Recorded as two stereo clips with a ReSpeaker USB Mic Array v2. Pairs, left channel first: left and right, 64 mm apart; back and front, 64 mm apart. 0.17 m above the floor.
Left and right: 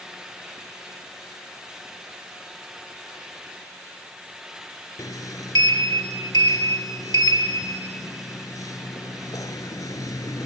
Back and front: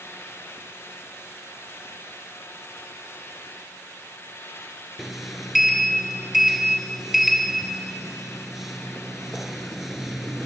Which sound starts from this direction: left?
A sliding door, at 5.0 s.